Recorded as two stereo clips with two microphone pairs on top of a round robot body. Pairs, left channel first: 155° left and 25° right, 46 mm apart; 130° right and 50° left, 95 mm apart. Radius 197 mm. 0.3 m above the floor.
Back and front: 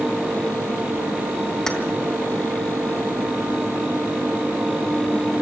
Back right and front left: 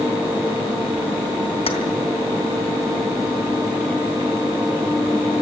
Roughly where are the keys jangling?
Behind right.